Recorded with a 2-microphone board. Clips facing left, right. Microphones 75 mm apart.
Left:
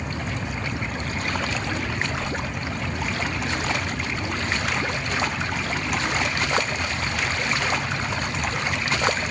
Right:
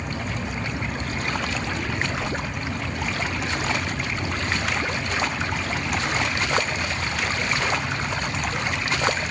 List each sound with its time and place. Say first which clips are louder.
2.2 s a whoosh: right 1 dB; 15° right (ahead or behind), 0.6 m